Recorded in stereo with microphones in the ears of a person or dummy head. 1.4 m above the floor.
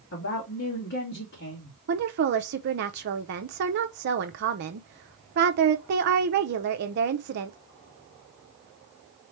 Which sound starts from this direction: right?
A woman speaking, at 1.9 s.